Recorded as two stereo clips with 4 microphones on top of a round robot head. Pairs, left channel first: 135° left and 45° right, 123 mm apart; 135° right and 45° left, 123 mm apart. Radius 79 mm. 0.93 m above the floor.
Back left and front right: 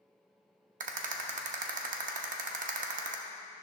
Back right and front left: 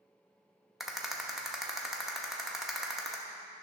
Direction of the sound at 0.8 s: 45° right.